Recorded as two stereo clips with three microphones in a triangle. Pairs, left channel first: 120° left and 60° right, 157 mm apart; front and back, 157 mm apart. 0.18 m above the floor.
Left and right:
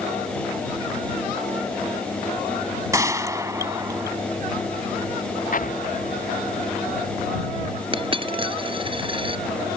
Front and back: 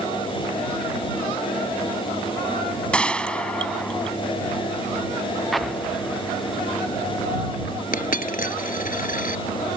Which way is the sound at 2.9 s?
70° right.